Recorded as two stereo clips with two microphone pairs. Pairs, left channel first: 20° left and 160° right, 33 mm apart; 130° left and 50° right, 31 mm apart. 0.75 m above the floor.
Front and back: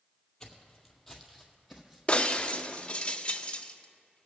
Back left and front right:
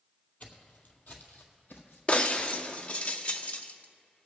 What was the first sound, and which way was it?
Footsteps, 95° left.